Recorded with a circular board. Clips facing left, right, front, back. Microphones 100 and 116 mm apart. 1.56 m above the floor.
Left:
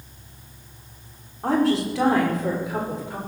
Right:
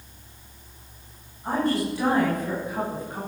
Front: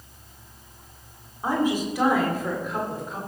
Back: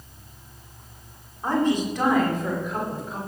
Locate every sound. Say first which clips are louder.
1.4 s a woman speaking: left 4 dB, back 2 dB; 80° left, 5 m; by 3.2 s 90° left, 6 m